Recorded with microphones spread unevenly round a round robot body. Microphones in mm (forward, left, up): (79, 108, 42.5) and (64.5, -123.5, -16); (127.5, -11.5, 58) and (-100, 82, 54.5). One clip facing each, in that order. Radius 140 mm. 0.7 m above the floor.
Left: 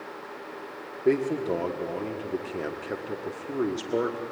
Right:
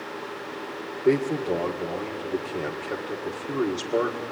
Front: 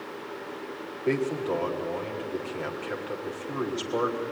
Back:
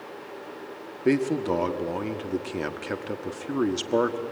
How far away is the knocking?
No knocking in this recording.